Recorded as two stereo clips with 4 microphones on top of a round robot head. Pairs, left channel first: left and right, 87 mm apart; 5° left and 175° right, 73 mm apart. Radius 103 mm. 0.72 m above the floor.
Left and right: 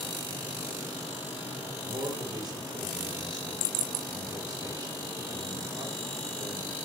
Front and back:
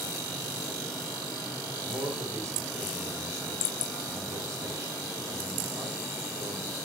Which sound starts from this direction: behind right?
A man speaking, at 1.8 s.